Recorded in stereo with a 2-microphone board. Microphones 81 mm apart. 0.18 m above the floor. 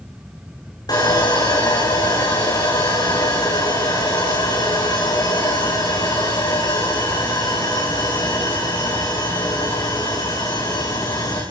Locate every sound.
0.9 s sawing: 50° left (ahead or behind), 9.5 m